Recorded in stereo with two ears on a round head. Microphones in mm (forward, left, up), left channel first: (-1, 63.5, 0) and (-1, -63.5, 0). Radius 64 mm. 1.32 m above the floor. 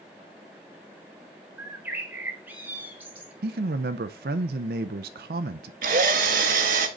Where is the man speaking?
75° right (ahead or behind), 0.6 m.